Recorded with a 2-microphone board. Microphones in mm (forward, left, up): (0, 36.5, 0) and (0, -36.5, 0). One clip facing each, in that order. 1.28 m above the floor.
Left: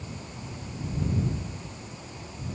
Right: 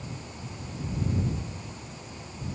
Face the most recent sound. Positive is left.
No sound to turn to.